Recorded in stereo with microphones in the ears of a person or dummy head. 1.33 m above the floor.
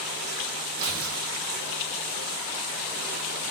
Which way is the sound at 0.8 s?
70° right (ahead or behind).